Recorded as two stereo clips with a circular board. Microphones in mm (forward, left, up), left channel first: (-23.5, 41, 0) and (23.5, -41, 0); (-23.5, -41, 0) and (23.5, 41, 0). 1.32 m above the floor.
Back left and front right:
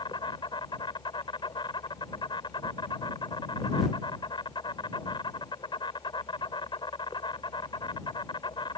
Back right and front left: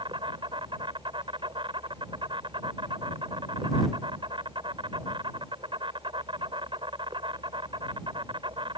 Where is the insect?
85° left.